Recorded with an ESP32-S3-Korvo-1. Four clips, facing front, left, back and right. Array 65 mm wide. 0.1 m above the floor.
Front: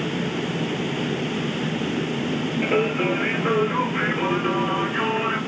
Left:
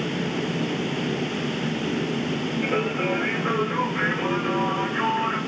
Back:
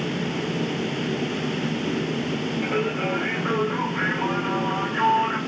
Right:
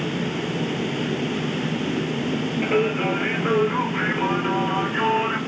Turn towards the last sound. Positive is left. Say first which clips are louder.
# right 4 dB, front 5 dB
turn(degrees=-40)